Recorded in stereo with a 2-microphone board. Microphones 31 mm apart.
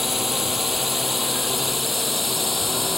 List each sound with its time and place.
0.0 s a drone: 5° right (ahead or behind); by 3.0 s centre (ahead or behind)